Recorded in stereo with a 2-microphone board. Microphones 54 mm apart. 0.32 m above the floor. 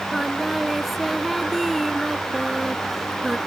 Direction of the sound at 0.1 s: Centre (ahead or behind).